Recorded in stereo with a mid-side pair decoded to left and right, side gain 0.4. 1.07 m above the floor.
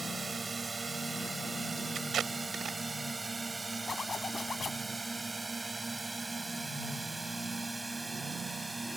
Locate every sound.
0.0 s a drone: 25° right; by 9.0 s 10° right
1.9 s tape being pulled: 60° right
3.9 s a zipper: 45° left